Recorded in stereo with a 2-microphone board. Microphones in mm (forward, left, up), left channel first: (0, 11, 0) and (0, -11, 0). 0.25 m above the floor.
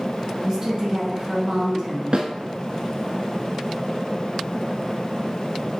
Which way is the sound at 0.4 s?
20° right (ahead or behind).